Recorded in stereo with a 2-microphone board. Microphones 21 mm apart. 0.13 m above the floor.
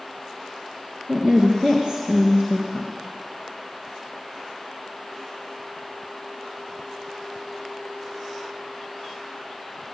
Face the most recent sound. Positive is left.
turn(degrees=-40)  # may be behind; listen again after turning